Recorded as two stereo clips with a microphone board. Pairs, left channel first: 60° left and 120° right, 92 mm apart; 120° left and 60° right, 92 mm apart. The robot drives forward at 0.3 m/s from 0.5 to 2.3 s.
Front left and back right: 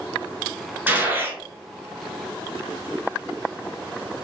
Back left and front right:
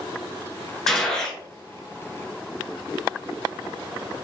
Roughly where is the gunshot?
Behind.